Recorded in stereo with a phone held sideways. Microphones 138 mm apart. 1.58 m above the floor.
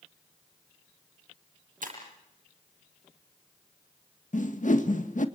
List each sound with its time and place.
1.8 s breaking glass: 80° right, 8.5 m
4.3 s a whoosh: 65° left (ahead or behind), 1.8 m